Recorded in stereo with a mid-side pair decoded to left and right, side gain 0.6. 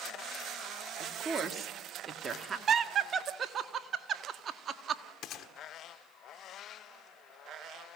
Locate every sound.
1.0 s a woman speaking: 30° right, 2 m
2.7 s laughter: 40° right, 1.6 m
5.2 s a gunshot: 60° left, 1.3 m